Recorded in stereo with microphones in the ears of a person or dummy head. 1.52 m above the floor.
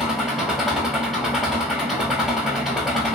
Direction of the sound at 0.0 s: 5° right (ahead or behind).